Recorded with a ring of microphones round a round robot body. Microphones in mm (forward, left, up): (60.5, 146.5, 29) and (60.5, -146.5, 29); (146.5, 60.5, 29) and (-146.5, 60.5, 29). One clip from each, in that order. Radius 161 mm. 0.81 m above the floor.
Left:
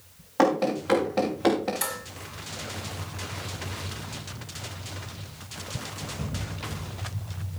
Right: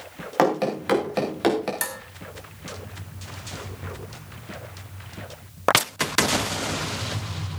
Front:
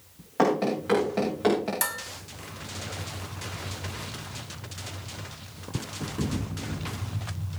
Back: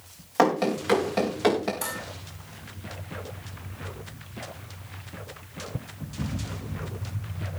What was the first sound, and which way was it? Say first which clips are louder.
Running footsteps: right 1 dB, back 2 dB; 115° right.